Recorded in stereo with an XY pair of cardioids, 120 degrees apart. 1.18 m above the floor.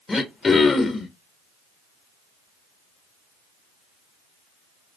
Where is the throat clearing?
25° left, 0.7 m.